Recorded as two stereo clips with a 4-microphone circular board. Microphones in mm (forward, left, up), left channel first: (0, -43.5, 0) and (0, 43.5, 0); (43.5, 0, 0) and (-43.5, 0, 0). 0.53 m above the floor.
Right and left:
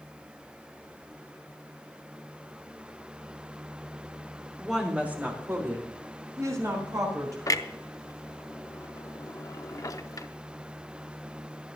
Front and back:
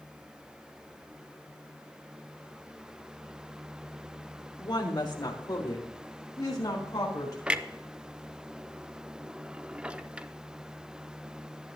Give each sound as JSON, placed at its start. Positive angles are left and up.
{"t": 4.6, "sound": "a woman speaking", "azimuth_deg": 5, "distance_m": 1.4}
{"t": 7.5, "sound": "a clunk", "azimuth_deg": -110, "distance_m": 0.6}